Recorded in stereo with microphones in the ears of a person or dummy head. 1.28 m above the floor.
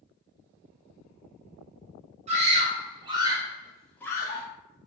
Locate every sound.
2.3 s a scream: 30° right (ahead or behind), 1.3 m; by 4.5 s 30° left (ahead or behind), 0.8 m